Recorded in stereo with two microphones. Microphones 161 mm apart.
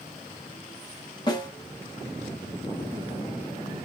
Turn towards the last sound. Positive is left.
turn(degrees=30)  # may be behind; listen again after turning